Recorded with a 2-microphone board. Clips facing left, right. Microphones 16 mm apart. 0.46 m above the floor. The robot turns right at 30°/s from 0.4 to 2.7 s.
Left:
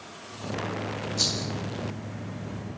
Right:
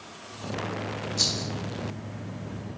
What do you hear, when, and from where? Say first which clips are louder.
1.2 s a rattle: right 1 dB; 10° right (ahead or behind), 4 m; by 1.5 s 5° right (ahead or behind), 4 m